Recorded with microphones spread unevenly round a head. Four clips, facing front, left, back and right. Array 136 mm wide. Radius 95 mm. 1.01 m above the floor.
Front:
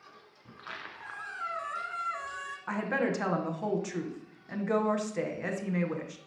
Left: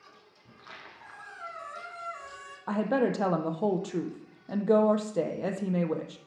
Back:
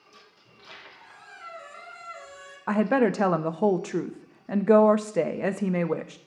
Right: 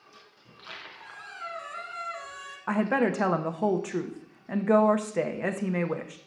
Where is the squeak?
5° right, 1.4 m.